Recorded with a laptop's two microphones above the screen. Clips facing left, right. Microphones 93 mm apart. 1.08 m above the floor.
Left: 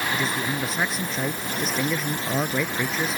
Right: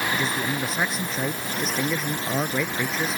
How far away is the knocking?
No knocking in this recording.